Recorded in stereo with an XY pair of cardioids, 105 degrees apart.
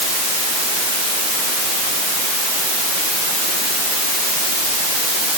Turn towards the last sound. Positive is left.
No sound to turn to.